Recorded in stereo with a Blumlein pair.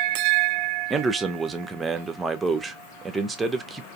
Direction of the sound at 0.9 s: 15° right.